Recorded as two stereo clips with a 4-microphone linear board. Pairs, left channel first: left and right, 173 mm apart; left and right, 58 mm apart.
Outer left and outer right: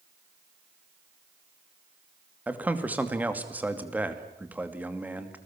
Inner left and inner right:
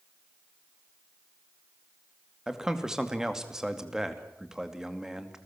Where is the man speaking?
10° right (ahead or behind), 2.5 m.